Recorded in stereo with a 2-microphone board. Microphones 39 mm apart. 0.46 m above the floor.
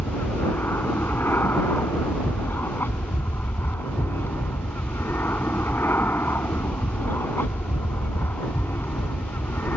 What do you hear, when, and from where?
0.0 s an aircraft: 75° left (ahead or behind); by 9.8 s 65° left (ahead or behind)